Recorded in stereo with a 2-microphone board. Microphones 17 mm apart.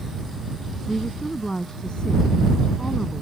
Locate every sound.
0.9 s a woman speaking: 55° left (ahead or behind)